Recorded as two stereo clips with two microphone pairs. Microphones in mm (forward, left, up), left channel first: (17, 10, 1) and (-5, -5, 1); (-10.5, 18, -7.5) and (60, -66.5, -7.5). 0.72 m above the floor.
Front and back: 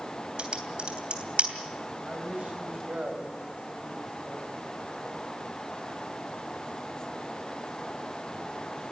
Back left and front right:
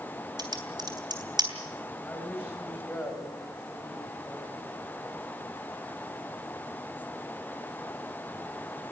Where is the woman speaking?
160° right, 3.5 m.